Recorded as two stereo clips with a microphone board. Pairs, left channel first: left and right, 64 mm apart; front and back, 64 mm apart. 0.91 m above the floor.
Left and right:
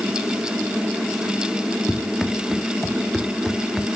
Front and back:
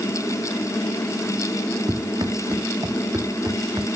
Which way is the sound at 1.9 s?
Straight behind.